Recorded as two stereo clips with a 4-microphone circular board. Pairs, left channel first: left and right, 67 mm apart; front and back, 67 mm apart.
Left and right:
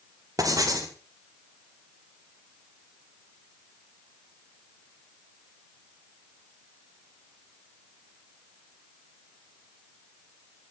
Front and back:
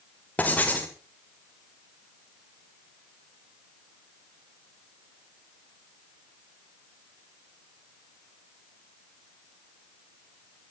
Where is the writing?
65° right, 4 m.